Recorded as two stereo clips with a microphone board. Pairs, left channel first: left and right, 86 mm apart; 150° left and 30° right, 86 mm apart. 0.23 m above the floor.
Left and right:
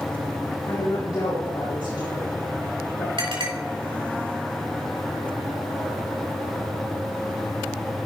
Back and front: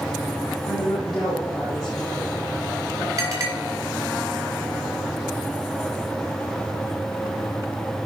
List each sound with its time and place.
0.7 s a woman speaking: 65° left, 5.5 m
3.2 s a clink: 75° right, 3.5 m